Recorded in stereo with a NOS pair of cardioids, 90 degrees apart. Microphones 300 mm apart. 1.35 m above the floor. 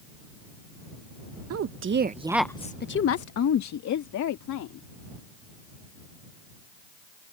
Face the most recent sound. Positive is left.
turn(degrees=75)